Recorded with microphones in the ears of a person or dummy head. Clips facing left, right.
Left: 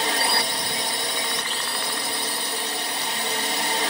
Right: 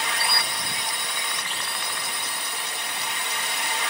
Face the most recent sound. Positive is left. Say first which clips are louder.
# left 5 dB
turn(degrees=35)  # may be behind; listen again after turning